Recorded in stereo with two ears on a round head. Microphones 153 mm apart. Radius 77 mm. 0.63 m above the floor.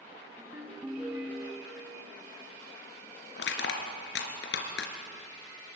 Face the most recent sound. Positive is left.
turn(degrees=80)